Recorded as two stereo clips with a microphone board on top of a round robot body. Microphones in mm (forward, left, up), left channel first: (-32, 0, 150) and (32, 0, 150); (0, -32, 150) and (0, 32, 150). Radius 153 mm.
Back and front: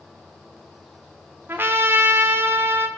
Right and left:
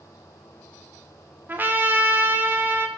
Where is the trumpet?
40° left, 1.0 m.